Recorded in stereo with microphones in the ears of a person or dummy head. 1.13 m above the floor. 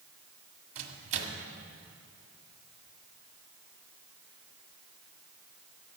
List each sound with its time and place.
0.8 s a microwave: 35° right (ahead or behind), 1.6 m